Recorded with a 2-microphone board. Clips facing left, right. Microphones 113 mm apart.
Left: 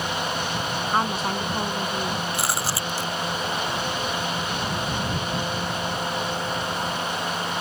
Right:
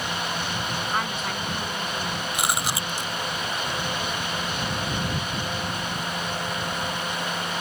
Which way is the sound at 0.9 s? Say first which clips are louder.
Left 7 dB; 35° left (ahead or behind).